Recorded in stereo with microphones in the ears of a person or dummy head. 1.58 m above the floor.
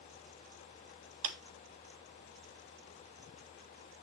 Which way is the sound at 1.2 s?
45° right (ahead or behind).